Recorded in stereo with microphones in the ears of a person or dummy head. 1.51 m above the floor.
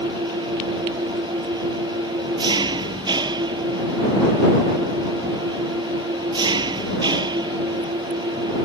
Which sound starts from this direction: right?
An engine running, at 0.0 s.